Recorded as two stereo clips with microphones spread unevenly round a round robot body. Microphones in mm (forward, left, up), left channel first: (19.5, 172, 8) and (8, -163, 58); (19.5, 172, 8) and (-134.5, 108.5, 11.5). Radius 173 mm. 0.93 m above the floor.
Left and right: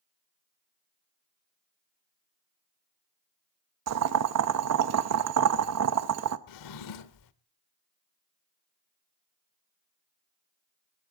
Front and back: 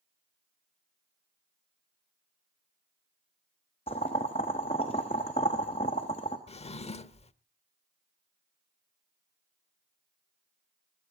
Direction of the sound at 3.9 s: 50° right.